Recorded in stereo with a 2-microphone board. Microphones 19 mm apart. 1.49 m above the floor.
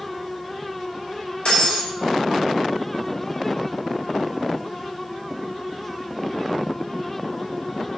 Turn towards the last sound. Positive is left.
turn(degrees=50)  # may be behind; listen again after turning